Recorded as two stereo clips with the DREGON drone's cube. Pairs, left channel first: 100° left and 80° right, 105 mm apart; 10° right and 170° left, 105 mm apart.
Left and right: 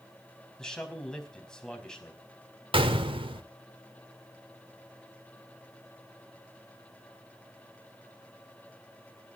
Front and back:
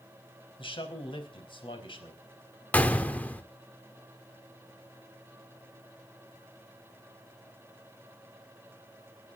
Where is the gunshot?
85° right, 1.4 m.